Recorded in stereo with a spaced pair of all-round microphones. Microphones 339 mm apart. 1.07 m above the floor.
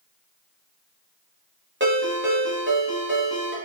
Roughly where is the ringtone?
Right.